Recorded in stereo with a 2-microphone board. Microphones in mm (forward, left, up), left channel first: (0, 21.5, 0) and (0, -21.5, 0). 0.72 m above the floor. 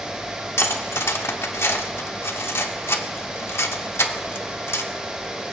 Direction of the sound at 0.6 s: 75° left (ahead or behind).